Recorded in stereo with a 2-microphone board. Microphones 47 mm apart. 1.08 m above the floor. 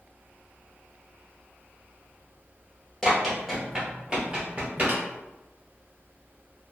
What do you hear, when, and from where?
3.0 s running footsteps: 10° left (ahead or behind), 1.3 m; by 5.0 s 30° right (ahead or behind), 1.3 m
4.9 s tapping: 45° right (ahead or behind), 1.3 m